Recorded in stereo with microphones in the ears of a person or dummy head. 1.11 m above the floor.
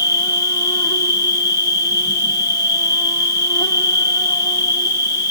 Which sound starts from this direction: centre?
An insect, at 0.0 s.